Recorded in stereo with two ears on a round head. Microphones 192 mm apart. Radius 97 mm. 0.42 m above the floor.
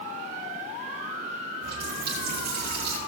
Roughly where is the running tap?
Right.